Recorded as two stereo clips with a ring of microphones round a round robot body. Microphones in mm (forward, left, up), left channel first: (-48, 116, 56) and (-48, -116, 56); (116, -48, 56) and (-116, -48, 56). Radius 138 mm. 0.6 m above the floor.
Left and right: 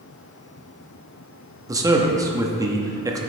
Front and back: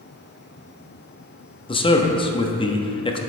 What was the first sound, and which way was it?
A man speaking, 35° right.